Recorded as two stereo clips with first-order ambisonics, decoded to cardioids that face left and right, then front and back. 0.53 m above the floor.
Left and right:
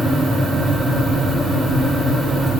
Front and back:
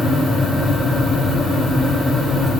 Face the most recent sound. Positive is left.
No sound to turn to.